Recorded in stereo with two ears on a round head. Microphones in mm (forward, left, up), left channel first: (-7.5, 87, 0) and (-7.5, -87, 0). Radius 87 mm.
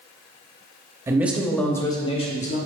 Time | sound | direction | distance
1.1 | a man speaking | 15° right (ahead or behind) | 0.9 m